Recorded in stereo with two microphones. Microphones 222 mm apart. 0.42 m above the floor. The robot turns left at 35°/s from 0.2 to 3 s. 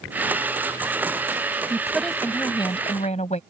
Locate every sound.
1.7 s a woman speaking: 170° right; by 3.4 s 145° left